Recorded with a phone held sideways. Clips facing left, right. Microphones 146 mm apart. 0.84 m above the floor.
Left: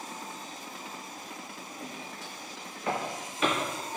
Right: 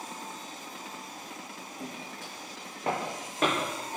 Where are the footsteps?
55° right (ahead or behind), 1.6 m; by 4.0 s 70° right (ahead or behind), 2.5 m.